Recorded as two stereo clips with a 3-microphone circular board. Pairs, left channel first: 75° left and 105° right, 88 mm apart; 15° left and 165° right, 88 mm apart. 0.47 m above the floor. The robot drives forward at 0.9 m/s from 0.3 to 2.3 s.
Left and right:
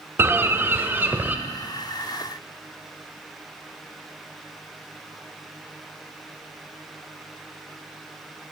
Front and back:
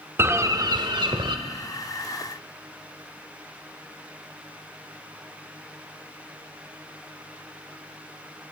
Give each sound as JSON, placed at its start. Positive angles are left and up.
{"t": 0.2, "sound": "a bird", "azimuth_deg": -140, "distance_m": 0.6}